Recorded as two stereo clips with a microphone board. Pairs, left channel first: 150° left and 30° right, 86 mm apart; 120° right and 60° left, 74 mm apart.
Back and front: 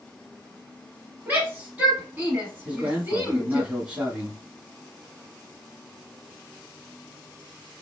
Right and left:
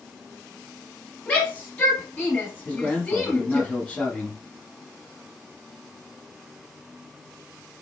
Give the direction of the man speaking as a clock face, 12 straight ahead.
3 o'clock.